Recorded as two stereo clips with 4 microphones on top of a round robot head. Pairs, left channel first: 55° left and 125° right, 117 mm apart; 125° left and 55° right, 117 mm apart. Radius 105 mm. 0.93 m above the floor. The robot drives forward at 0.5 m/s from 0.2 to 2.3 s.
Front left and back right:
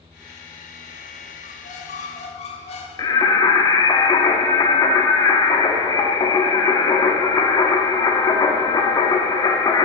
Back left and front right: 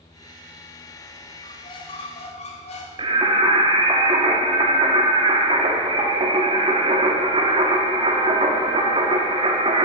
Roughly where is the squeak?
Ahead left.